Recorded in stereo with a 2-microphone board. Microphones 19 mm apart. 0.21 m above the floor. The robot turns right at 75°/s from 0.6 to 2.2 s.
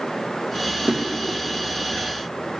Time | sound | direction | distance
0.8 | a drawer | 65° right (ahead or behind) | 2.5 m